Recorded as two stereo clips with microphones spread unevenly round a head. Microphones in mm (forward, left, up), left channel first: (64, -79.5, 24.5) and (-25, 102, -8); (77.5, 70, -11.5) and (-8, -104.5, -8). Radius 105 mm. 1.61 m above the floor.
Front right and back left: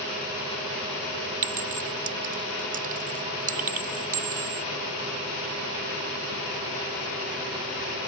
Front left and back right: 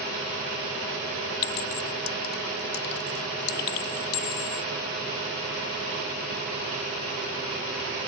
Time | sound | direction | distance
1.4 | a clink | 65° left | ?